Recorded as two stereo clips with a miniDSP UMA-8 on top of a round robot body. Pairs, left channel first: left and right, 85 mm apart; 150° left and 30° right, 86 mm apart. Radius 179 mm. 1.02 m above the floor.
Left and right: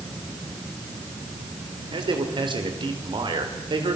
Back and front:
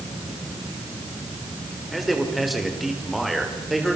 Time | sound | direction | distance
1.9 | a man speaking | 120° right | 4.5 m